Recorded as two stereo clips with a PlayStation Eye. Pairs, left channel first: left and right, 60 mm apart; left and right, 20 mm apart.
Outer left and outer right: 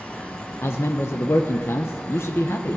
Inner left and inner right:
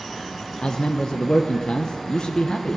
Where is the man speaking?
45° left (ahead or behind), 0.9 m.